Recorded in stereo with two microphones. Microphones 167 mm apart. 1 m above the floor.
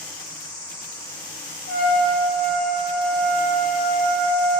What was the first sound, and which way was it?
An insect, 65° right (ahead or behind).